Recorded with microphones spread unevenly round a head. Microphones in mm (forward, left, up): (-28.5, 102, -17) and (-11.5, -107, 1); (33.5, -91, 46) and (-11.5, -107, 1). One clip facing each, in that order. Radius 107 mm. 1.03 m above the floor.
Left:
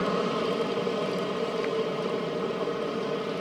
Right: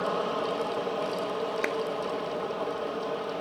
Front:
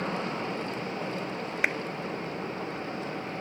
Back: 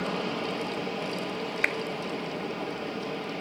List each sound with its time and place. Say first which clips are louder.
0.0 s an aircraft: left 3 dB, back 1 dB; 125° left
1.6 s a clap: left 2 dB, front 1 dB; 55° right